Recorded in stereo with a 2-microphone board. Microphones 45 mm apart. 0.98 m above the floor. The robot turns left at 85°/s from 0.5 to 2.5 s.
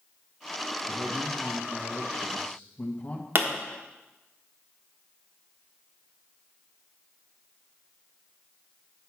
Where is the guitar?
I don't hear a guitar.